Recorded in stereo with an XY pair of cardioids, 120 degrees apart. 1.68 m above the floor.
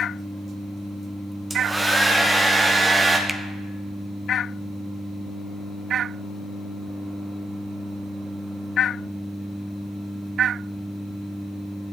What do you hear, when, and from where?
1.5 s a hair dryer: 10° right, 1.7 m
3.3 s a finger snap: straight ahead, 0.7 m